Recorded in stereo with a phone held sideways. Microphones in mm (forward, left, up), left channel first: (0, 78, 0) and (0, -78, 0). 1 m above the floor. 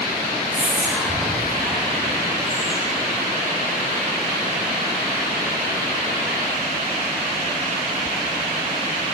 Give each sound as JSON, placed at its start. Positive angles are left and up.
{"t": 0.5, "sound": "whispering", "side_deg": 5, "distance_m": 2.0}